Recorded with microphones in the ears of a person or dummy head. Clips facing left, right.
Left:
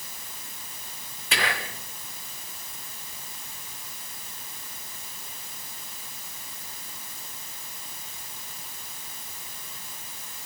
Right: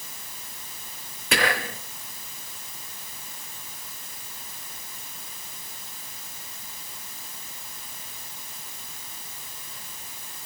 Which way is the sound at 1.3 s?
50° right (ahead or behind).